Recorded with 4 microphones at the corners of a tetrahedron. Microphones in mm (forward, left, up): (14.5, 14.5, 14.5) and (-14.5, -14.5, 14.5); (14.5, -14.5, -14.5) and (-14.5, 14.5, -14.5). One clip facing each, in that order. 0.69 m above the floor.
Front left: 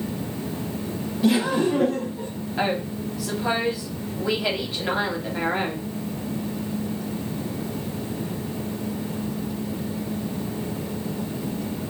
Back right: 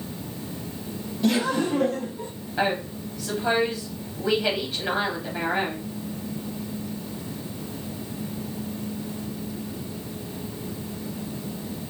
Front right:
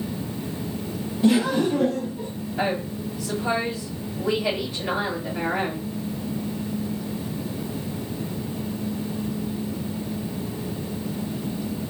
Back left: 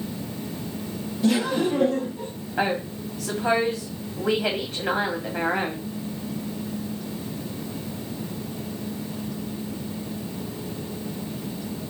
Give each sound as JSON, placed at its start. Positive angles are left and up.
{"t": 1.2, "sound": "laughter", "azimuth_deg": -25, "distance_m": 0.9}
{"t": 2.6, "sound": "a woman speaking", "azimuth_deg": 130, "distance_m": 1.3}